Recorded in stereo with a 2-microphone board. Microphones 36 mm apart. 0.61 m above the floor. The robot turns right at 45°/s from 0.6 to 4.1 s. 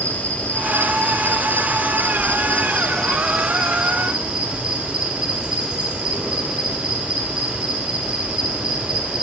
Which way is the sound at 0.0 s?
60° left.